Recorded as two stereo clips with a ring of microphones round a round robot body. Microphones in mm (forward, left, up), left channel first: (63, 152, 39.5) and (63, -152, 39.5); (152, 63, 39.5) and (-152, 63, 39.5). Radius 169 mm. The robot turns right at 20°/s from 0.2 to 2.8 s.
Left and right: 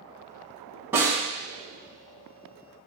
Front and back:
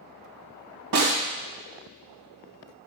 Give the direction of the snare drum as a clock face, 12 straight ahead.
6 o'clock.